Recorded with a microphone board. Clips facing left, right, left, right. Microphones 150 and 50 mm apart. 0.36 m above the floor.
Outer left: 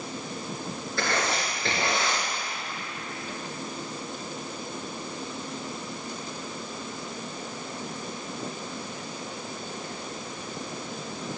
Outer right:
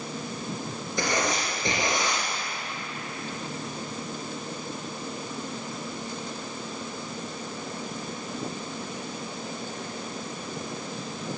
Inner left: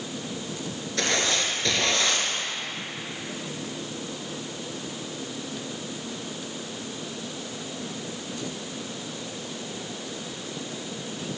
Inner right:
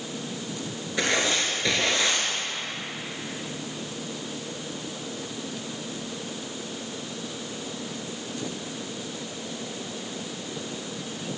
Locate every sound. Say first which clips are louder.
1.0 s writing: outer right 1 dB, inner right 1 dB; 15° right (ahead or behind), 2.5 m